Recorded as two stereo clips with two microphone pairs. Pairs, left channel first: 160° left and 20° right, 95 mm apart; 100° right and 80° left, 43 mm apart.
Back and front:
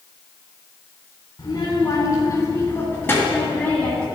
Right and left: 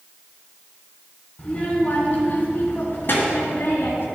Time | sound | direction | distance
1.4 | a child speaking | 160° right | 2 m